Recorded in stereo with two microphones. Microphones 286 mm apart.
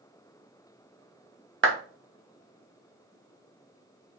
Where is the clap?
45° right (ahead or behind), 0.6 m.